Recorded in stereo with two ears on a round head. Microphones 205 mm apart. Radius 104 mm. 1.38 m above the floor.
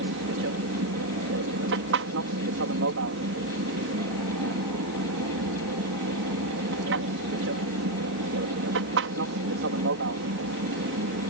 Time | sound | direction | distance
0.0 | an aircraft | 60° right (ahead or behind) | ?